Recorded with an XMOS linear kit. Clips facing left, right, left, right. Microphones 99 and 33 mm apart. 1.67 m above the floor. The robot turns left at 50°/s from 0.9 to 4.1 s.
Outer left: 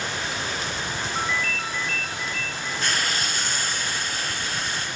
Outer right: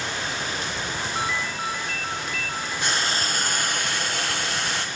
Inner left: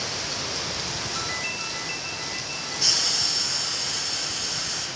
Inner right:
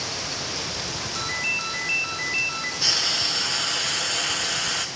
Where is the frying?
15° right, 1.5 m; by 4.9 s 80° right, 1.5 m.